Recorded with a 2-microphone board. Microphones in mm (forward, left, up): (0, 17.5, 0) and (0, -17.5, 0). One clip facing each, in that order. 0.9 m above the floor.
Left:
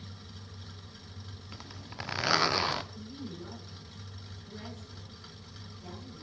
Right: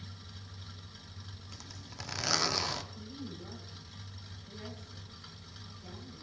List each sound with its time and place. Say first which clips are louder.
1.5 s a zipper: left 5 dB; 30° left (ahead or behind), 0.7 m
2.9 s a woman speaking: left 2 dB; 75° left (ahead or behind), 9.5 m